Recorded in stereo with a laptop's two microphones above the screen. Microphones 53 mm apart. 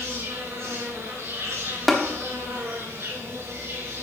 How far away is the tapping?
About 1.2 m.